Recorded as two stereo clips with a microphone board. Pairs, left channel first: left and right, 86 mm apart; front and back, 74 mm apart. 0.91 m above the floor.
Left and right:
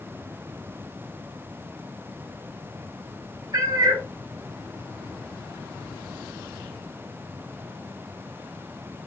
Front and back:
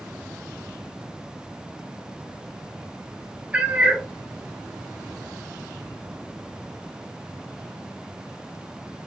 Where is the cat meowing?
110° right, 0.5 m.